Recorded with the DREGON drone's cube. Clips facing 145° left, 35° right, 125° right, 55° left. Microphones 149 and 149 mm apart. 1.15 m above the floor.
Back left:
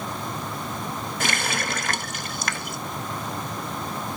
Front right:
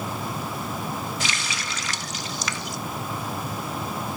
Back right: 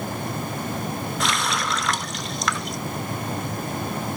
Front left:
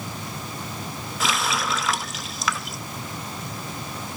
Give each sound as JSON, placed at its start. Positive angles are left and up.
{"t": 1.2, "sound": "a running tap", "azimuth_deg": 145, "distance_m": 0.5}